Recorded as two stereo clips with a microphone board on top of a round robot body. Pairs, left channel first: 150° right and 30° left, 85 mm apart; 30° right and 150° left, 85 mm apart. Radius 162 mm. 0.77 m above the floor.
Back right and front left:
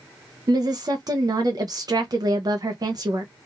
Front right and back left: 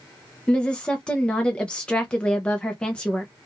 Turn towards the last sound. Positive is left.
turn(degrees=45)